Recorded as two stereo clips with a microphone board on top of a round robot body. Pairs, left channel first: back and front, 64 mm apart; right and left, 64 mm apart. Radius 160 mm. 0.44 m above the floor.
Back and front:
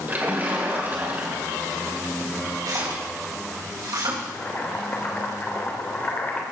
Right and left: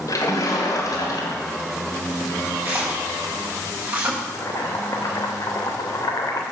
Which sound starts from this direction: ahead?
A splash, at 2.6 s.